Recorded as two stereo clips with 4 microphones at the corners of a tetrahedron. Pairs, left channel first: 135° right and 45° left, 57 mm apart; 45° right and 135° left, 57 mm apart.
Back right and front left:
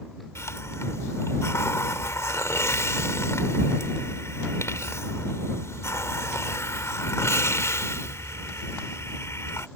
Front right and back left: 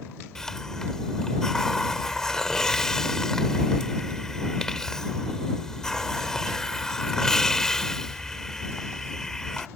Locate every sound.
0.3 s a hiss: 125° right